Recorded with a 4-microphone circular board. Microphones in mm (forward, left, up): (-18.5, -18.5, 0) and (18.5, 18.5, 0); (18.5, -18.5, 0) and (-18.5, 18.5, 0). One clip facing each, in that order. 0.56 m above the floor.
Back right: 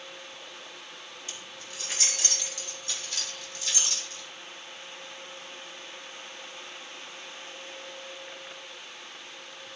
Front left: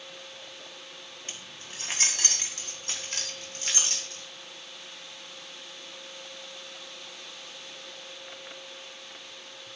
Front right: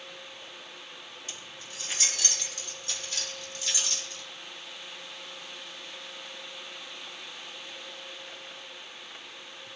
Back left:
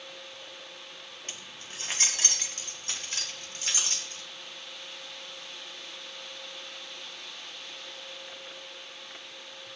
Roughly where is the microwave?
No microwave in this recording.